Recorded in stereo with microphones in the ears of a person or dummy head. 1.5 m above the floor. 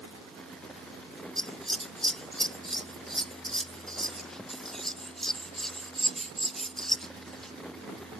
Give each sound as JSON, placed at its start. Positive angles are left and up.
{"t": 1.4, "sound": "scissors", "side_deg": 5}